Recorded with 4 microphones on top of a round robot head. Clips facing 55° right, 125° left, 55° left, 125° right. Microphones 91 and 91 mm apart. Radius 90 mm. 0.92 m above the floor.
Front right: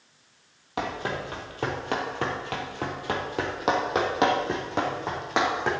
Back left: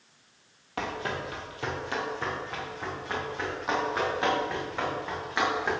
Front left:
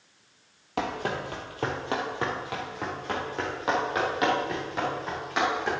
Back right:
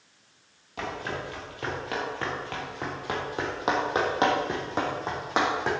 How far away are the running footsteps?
About 2 m.